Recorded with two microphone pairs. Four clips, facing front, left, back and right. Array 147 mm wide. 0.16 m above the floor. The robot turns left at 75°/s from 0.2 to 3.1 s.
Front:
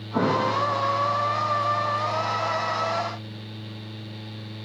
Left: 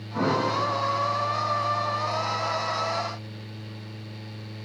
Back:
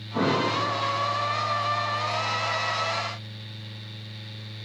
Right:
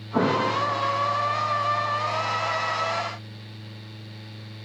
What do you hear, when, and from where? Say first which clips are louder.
0.1 s an explosion: right 2 dB, front 2 dB; 70° right, 4.5 m; by 0.6 s 100° right, 4.5 m